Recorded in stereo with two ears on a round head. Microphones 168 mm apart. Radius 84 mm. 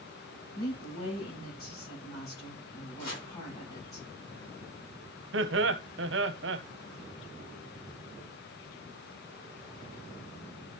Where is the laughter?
70° right (ahead or behind), 1.0 m.